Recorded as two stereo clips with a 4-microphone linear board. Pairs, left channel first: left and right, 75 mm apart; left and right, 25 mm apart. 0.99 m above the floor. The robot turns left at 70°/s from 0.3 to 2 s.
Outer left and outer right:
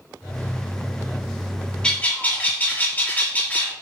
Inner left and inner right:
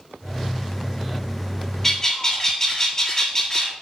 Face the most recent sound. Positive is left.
turn(degrees=25)  # may be behind; listen again after turning